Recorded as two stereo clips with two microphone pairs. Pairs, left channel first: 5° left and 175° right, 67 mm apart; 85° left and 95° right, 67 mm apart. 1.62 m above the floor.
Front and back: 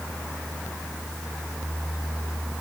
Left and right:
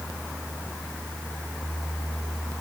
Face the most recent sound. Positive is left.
No sound to turn to.